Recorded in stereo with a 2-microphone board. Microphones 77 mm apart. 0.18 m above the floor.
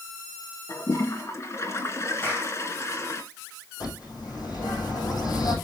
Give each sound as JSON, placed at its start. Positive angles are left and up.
{"t": 0.7, "sound": "a toilet flushing", "side_deg": 40, "distance_m": 2.0}
{"t": 2.2, "sound": "a clap", "side_deg": 30, "distance_m": 9.5}
{"t": 3.8, "sound": "a bird", "side_deg": 60, "distance_m": 8.0}